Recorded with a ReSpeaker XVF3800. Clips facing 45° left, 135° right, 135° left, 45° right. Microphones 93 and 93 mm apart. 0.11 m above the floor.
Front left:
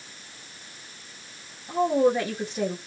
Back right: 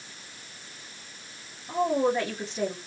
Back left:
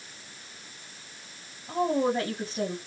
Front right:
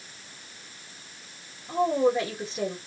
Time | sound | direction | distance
1.7 | a woman speaking | 125° left | 2 m